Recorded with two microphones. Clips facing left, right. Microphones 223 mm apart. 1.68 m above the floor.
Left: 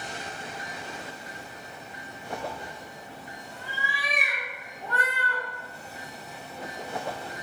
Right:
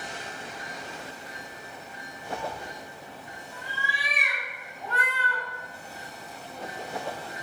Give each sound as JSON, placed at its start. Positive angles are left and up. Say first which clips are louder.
{"t": 2.3, "sound": "a cat meowing", "louder": "right 1 dB", "side_deg": 5, "distance_m": 1.1}